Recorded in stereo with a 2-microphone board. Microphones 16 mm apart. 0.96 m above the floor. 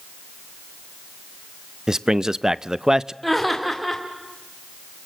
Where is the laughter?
Centre (ahead or behind), 2.5 m.